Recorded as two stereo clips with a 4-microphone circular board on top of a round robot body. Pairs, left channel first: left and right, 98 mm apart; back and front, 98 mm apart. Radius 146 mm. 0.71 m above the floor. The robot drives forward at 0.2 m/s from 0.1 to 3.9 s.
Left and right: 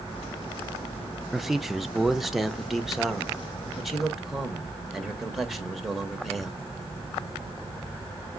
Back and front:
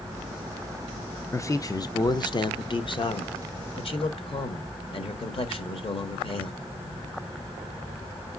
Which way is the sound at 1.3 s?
175° right.